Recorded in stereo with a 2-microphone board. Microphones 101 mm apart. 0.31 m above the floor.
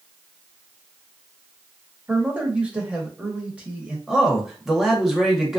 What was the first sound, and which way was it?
A man speaking, 15° right (ahead or behind).